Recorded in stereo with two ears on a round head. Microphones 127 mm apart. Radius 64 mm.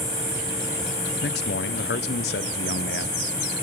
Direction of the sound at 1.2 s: 85° left.